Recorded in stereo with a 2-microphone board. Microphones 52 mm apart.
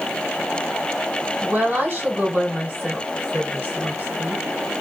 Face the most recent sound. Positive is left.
turn(degrees=-40)  # may be behind; listen again after turning